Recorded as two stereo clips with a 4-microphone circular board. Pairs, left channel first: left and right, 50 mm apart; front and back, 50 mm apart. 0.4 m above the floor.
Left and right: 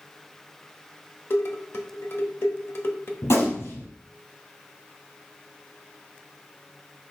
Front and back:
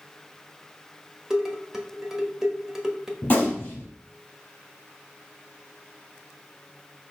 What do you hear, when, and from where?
1.3 s dishes clattering: 100° left, 1.1 m
3.2 s a gunshot: 65° left, 3 m